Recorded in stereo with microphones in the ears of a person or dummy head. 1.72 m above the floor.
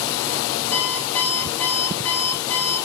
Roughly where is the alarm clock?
Centre.